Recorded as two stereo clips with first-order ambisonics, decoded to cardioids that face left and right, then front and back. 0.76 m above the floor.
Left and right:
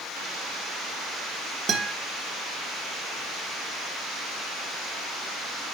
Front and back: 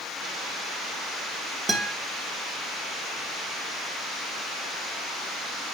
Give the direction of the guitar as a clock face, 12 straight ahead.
4 o'clock.